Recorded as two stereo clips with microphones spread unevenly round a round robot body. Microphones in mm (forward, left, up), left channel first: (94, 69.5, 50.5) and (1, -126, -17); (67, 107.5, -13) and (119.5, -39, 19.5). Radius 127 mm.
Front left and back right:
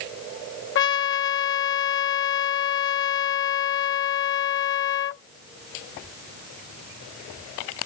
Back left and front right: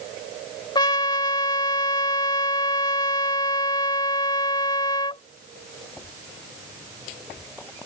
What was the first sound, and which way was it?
A trumpet, 90° left.